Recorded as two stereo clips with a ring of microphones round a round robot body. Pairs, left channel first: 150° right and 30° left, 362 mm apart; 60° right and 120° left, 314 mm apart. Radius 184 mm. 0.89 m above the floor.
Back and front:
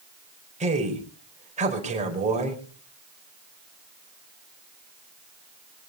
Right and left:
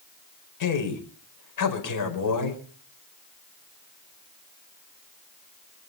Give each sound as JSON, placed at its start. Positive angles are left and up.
{"t": 0.6, "sound": "a man speaking", "azimuth_deg": -40, "distance_m": 4.5}